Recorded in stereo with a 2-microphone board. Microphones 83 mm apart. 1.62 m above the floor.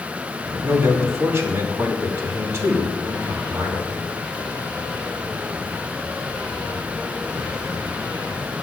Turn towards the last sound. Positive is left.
turn(degrees=-35)  # may be behind; listen again after turning